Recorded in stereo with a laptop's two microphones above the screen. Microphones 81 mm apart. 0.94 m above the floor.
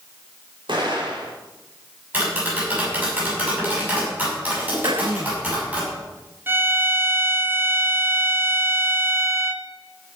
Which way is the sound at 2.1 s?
20° right (ahead or behind).